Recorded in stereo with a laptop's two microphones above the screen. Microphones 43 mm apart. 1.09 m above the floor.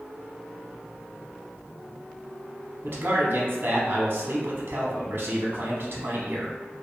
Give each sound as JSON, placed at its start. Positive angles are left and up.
{"t": 2.8, "sound": "a man speaking", "side_deg": -50, "distance_m": 0.8}